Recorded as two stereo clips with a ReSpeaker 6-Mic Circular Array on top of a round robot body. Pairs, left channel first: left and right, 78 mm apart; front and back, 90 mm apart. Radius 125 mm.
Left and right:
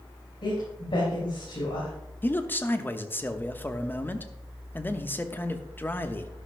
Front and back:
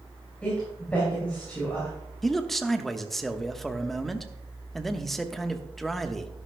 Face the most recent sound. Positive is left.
turn(degrees=85)